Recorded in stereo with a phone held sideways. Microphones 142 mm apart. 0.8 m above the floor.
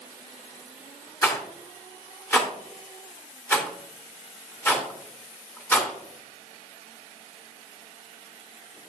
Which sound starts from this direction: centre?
A rattle, at 1.2 s.